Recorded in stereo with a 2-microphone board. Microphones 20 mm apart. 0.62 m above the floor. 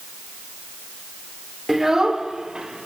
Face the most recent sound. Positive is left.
turn(degrees=-50)  # may be behind; listen again after turning